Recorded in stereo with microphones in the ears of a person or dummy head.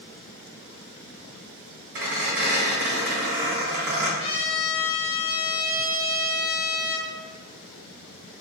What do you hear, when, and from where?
1.9 s a squeak: 60° right (ahead or behind), 1.4 m
4.2 s a trumpet: 35° left (ahead or behind), 1.3 m